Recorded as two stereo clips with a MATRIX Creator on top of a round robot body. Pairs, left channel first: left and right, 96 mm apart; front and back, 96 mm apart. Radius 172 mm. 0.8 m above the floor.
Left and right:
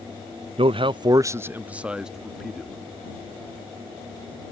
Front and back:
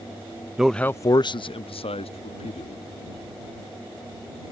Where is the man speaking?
95° right; by 2.8 s straight ahead.